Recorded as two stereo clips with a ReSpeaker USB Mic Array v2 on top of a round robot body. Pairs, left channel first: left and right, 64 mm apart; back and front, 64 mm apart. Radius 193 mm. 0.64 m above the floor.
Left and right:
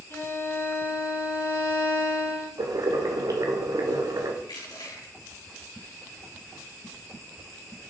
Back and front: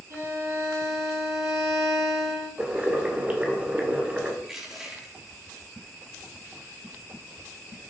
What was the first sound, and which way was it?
A violin, 40° left.